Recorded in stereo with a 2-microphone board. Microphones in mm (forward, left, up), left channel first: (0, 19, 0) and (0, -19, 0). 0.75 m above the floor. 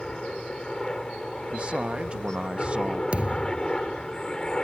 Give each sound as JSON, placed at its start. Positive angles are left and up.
{"t": 0.0, "sound": "a helicopter", "side_deg": 20}
{"t": 1.5, "sound": "a man speaking", "side_deg": -30}
{"t": 3.1, "sound": "a thud", "side_deg": -35}